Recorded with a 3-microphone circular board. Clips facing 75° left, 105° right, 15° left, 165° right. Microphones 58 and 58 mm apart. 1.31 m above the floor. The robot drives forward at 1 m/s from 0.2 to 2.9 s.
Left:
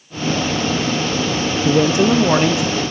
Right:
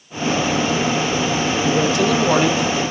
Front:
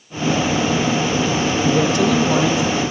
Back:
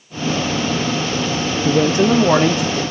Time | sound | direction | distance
1.6 | a man speaking | 120° left | 0.7 m